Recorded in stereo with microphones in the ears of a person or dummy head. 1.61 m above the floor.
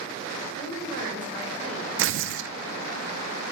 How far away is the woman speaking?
About 7 m.